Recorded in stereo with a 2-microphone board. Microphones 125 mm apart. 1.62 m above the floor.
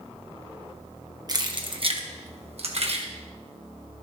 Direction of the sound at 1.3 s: 35° right (ahead or behind).